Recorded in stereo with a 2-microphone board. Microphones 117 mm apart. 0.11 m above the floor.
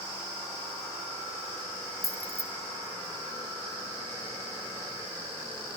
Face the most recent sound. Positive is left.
turn(degrees=-30)  # may be behind; listen again after turning